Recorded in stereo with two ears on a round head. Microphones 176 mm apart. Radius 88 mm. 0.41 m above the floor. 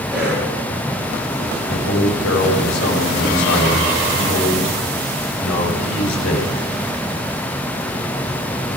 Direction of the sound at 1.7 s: 80° left.